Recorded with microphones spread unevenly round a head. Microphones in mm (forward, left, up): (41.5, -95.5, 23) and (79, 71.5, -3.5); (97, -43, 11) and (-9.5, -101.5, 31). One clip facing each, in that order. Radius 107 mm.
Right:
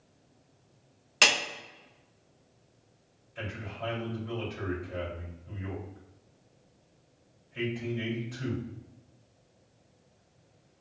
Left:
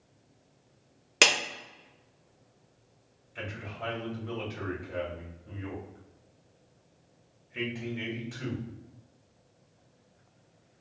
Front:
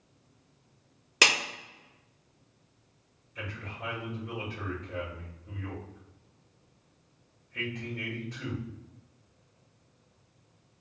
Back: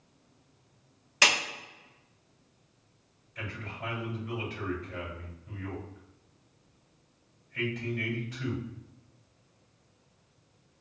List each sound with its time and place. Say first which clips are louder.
1.2 s a clap: left 3 dB, even; 45° left, 1.9 m
3.4 s a man speaking: right 1 dB, back 1 dB; 65° left, 2.0 m